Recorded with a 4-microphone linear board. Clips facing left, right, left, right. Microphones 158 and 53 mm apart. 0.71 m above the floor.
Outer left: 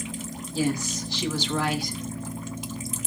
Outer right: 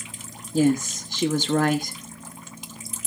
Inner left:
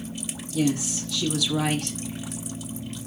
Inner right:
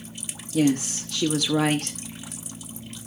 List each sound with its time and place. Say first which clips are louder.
0.5 s a woman speaking: outer right 6 dB, inner right 3 dB; 45° right (ahead or behind), 1.1 m